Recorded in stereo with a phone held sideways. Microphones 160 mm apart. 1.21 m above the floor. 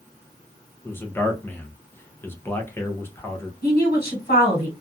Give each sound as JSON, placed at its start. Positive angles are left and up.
{"t": 0.8, "sound": "a man speaking", "side_deg": 15, "distance_m": 0.6}
{"t": 3.6, "sound": "a woman speaking", "side_deg": 80, "distance_m": 1.3}